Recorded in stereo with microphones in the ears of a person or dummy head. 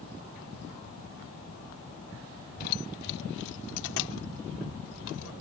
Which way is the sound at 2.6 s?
50° left (ahead or behind).